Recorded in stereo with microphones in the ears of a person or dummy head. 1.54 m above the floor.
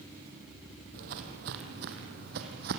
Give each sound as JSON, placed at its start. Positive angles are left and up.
{"t": 0.9, "sound": "footsteps", "side_deg": -55, "distance_m": 2.5}